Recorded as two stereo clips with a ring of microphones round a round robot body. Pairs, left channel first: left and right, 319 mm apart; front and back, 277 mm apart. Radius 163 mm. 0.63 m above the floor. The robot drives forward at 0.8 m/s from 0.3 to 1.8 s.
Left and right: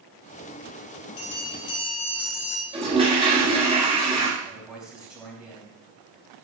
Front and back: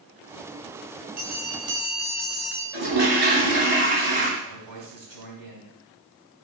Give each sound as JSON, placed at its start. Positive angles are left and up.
{"t": 1.2, "sound": "a bell", "azimuth_deg": 120, "distance_m": 2.5}
{"t": 2.7, "sound": "a toilet flushing", "azimuth_deg": -165, "distance_m": 3.5}
{"t": 4.4, "sound": "a man speaking", "azimuth_deg": 180, "distance_m": 4.0}